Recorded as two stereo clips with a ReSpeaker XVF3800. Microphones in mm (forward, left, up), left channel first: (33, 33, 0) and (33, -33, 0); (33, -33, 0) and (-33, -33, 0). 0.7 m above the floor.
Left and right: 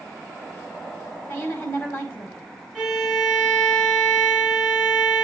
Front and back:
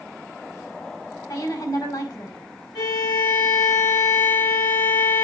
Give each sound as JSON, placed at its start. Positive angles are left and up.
{"t": 1.3, "sound": "a woman speaking", "azimuth_deg": 25, "distance_m": 3.5}
{"t": 2.8, "sound": "a violin", "azimuth_deg": 15, "distance_m": 3.5}